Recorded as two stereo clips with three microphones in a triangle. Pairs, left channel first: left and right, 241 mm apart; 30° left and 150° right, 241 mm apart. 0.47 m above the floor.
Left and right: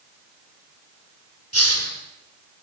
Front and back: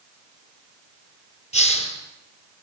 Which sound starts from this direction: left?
A hiss, at 1.5 s.